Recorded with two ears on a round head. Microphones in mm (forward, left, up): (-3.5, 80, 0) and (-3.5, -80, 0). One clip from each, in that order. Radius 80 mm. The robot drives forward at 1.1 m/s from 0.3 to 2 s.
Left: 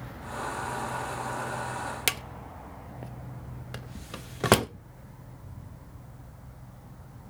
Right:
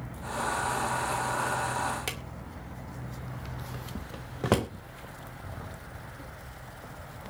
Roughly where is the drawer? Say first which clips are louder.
Left 6 dB; left.